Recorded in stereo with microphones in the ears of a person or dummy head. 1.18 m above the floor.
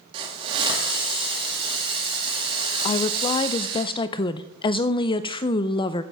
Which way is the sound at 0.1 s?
30° right (ahead or behind).